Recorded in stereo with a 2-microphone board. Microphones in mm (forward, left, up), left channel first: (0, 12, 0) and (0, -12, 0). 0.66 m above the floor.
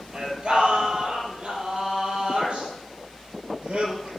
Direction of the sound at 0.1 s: 50° right (ahead or behind).